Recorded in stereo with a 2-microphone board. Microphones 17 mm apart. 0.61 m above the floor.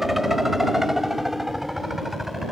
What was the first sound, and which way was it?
A helicopter, 10° right (ahead or behind).